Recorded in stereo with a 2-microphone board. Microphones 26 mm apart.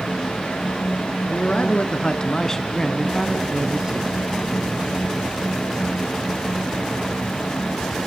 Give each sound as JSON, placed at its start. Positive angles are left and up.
{"t": 1.3, "sound": "a man speaking", "side_deg": 50, "distance_m": 2.5}